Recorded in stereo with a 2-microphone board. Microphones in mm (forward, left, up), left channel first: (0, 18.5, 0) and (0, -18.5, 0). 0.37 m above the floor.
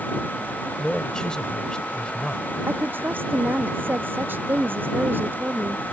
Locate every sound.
0.8 s a man speaking: 25° left (ahead or behind)
2.7 s a woman speaking: 65° right (ahead or behind)